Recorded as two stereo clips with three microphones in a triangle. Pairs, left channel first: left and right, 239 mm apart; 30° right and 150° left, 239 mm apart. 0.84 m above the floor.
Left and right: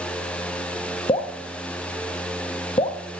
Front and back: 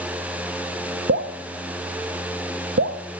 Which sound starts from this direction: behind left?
Dripping, at 1.1 s.